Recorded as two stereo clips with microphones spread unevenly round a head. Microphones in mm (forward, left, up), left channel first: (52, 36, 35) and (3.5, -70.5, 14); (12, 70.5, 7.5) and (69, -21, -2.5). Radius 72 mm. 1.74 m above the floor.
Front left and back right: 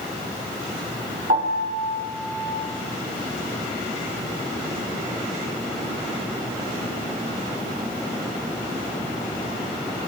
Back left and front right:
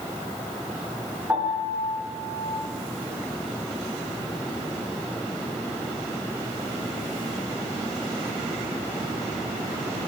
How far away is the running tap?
I don't hear a running tap.